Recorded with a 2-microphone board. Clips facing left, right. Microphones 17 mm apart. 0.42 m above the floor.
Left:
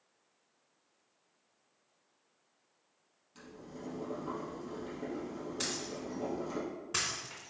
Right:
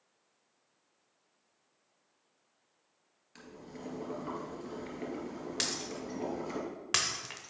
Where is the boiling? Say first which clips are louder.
Even; 75° right (ahead or behind), 2 m.